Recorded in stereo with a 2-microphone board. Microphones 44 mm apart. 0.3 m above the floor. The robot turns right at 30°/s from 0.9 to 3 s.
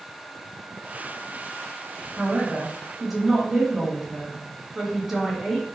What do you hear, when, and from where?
2.2 s a man speaking: 20° right (ahead or behind), 1.3 m; by 5.7 s 5° right (ahead or behind), 1.3 m